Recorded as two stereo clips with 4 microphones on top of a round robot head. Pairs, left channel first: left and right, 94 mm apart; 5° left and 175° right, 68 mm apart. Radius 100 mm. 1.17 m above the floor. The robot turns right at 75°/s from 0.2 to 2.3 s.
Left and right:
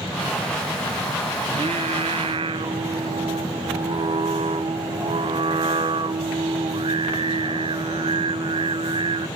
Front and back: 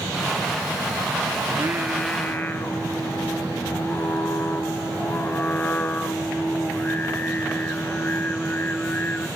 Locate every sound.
1.4 s singing: 125° right, 0.6 m; by 9.3 s 60° right, 0.6 m